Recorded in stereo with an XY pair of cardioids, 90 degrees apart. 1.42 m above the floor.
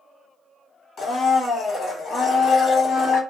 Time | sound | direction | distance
1.0 | a blender | 65° left | 1.3 m